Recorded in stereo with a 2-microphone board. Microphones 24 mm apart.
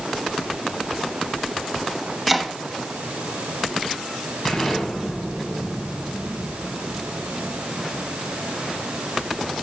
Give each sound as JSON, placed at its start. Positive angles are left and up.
{"t": 2.3, "sound": "chopping", "side_deg": -5, "distance_m": 1.2}
{"t": 4.5, "sound": "an explosion", "side_deg": 25, "distance_m": 5.5}